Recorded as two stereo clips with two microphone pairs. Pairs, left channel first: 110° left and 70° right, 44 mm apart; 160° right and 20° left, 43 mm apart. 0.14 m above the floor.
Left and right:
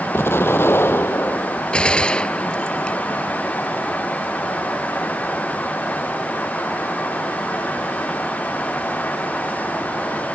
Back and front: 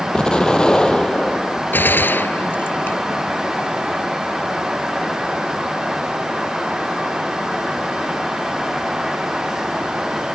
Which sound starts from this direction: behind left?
An explosion, at 0.1 s.